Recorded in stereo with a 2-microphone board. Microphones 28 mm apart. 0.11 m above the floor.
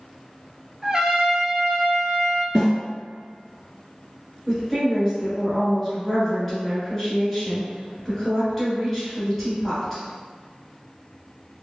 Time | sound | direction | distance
0.8 | a trumpet | 25° right (ahead or behind) | 0.6 m
2.5 | a snare drum | centre (ahead or behind) | 1.3 m
4.5 | a woman speaking | 10° left (ahead or behind) | 1.6 m